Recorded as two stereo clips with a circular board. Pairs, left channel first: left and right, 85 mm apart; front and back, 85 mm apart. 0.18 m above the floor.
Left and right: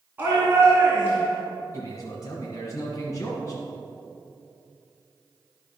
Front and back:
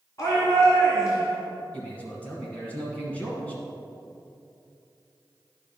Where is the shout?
30° right, 2.5 m.